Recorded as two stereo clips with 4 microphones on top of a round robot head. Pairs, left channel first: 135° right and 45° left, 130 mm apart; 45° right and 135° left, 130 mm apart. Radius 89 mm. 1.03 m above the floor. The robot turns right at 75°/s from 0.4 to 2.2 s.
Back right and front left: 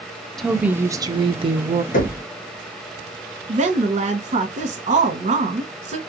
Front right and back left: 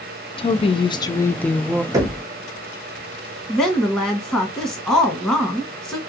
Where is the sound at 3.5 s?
30° left, 1.1 m.